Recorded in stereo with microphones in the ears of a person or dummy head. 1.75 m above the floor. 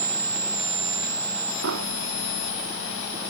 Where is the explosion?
70° right (ahead or behind).